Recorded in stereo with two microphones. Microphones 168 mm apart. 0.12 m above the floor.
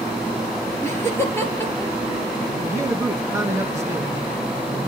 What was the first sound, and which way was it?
Laughter, 15° left (ahead or behind).